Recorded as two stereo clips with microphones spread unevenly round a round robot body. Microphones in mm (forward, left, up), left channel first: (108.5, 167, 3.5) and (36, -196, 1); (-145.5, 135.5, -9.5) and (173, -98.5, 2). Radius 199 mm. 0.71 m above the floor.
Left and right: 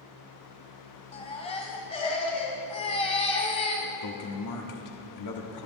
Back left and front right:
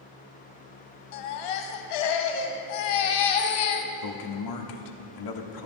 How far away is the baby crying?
About 1.7 m.